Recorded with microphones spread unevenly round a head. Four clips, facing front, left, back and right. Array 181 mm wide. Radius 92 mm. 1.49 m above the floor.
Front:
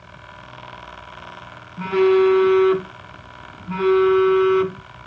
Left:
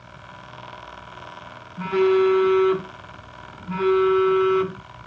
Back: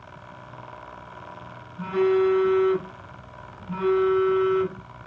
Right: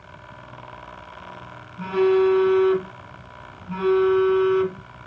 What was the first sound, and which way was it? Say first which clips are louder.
A phone buzzing: even, front 5 dB; 30° left.